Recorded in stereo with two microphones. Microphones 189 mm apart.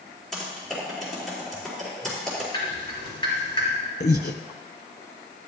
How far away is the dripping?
About 4 m.